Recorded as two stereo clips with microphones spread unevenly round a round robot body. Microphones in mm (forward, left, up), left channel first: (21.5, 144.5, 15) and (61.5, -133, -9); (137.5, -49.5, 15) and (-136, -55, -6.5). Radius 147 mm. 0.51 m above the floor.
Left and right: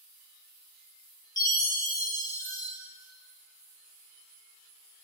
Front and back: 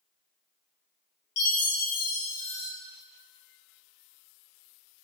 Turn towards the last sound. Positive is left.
turn(degrees=20)